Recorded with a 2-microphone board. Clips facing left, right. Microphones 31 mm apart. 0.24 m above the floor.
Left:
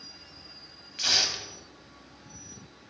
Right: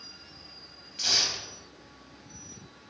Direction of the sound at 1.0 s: 20° left (ahead or behind).